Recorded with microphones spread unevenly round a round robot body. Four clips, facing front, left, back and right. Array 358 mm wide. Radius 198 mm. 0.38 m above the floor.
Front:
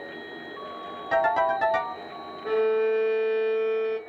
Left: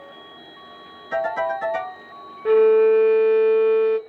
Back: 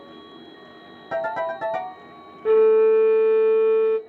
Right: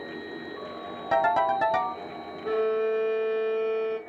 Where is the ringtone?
100° right, 1.1 m.